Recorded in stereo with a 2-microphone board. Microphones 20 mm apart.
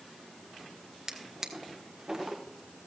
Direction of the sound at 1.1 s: 30° right (ahead or behind).